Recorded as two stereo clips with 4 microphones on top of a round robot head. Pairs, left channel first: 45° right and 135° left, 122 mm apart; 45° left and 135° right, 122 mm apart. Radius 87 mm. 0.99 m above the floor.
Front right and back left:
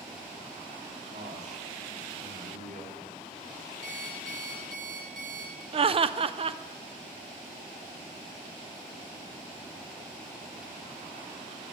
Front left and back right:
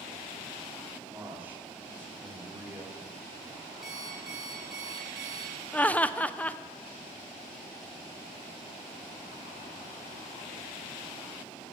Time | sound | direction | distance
1.1 | a man speaking | 155° left | 2.5 m
3.8 | an alarm clock | 135° left | 4 m
5.7 | laughter | 120° left | 0.5 m